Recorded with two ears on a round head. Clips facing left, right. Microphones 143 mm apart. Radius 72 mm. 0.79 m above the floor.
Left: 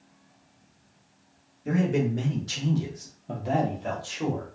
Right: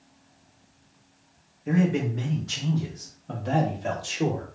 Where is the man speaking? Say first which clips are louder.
Right 1 dB; 55° left (ahead or behind), 1.3 m; by 4.5 s 35° right (ahead or behind), 0.9 m.